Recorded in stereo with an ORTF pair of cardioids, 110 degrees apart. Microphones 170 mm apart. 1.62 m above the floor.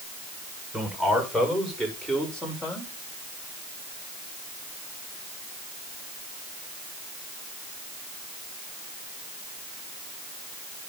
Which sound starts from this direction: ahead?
A man speaking, at 0.7 s.